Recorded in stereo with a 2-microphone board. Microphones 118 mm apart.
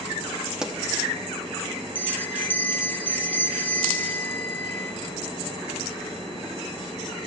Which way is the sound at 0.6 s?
5° right (ahead or behind).